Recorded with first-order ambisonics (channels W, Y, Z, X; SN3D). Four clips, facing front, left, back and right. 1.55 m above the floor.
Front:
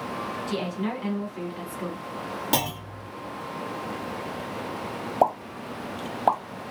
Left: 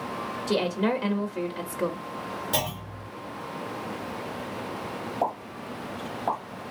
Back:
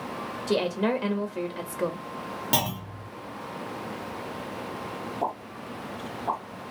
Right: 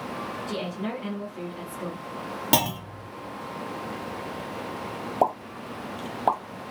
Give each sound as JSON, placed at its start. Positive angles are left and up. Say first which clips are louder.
{"t": 0.5, "sound": "a woman speaking", "louder": "left 9 dB, back 7 dB", "azimuth_deg": 135, "distance_m": 0.7}
{"t": 2.5, "sound": "a clunk", "louder": "right 7 dB, even", "azimuth_deg": -95, "distance_m": 1.6}
{"t": 5.2, "sound": "a pop", "louder": "right 6 dB, front 10 dB", "azimuth_deg": -35, "distance_m": 1.1}